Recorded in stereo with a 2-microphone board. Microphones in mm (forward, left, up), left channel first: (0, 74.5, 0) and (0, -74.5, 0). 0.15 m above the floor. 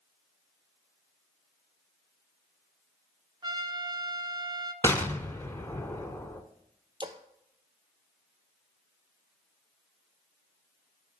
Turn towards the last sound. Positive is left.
turn(degrees=-35)  # may be behind; listen again after turning